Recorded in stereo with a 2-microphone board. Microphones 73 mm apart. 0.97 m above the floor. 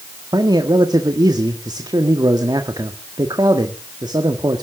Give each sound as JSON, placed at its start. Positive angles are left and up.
{"t": 0.3, "sound": "a man speaking", "side_deg": -70, "distance_m": 1.6}